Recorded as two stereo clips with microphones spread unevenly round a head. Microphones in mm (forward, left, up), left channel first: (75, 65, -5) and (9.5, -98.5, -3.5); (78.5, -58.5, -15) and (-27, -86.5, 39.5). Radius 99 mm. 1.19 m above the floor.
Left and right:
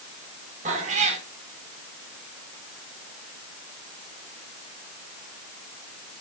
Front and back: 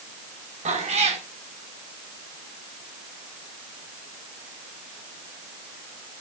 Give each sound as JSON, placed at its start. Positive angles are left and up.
{"t": 0.7, "sound": "a cat meowing", "azimuth_deg": -170, "distance_m": 1.9}